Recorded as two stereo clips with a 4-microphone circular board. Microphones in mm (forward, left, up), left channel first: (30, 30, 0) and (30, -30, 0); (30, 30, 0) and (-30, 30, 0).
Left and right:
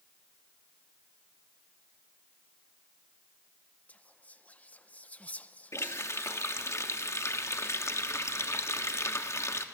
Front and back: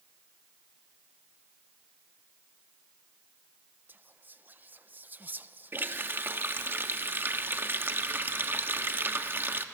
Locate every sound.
3.9 s whispering: 140° left, 0.6 m
5.7 s a running tap: 125° left, 1.0 m